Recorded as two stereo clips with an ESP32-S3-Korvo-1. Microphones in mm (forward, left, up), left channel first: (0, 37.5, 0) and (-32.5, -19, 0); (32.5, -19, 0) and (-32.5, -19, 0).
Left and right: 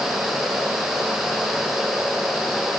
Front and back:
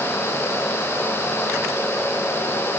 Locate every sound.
Only background noise.